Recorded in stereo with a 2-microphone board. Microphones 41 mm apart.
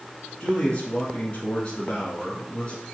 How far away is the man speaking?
About 1.8 m.